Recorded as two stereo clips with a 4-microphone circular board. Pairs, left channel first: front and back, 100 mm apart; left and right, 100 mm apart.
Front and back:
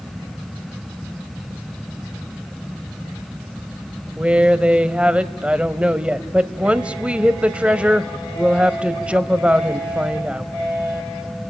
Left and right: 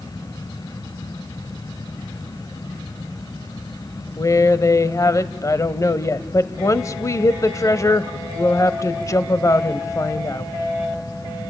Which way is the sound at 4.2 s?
110° left.